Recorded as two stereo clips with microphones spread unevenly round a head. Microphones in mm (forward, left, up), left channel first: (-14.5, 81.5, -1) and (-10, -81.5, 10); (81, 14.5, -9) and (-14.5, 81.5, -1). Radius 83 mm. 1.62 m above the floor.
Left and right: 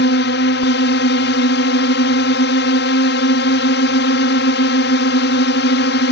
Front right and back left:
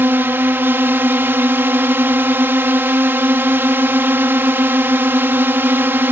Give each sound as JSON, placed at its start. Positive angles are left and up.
{"t": 0.0, "sound": "a drone", "azimuth_deg": 75}